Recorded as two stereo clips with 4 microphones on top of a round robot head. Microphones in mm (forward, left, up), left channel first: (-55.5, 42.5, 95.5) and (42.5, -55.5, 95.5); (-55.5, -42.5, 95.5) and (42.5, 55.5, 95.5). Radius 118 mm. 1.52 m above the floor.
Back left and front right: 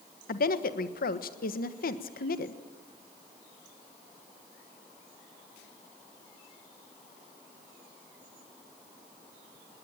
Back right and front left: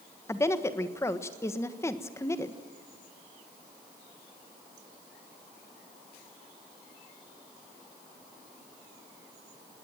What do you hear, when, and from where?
0.3 s a woman speaking: 155° left, 1.4 m